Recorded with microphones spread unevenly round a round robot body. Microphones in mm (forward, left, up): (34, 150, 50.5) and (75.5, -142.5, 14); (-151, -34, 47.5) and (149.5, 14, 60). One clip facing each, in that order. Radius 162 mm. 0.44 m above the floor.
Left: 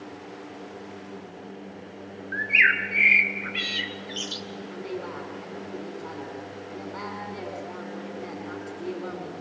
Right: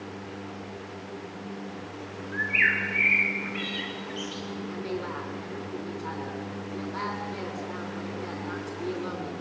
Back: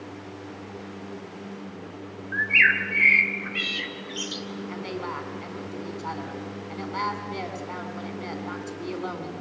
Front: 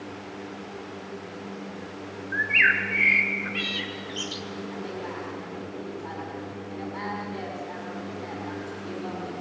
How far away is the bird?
About 1.6 m.